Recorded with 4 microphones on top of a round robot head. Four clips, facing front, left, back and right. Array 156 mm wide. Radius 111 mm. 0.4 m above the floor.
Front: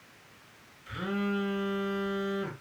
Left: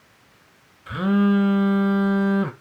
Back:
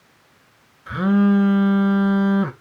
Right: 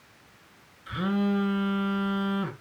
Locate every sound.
0.9 s a phone buzzing: 145° left, 1.2 m